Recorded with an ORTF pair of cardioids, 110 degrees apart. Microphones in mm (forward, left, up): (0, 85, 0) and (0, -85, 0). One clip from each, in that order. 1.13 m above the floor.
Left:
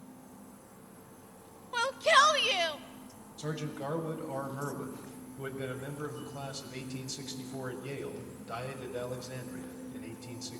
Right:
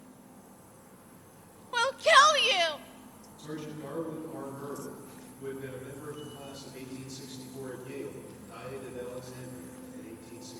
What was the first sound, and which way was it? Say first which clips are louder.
A machine running: left 1 dB; 20° left.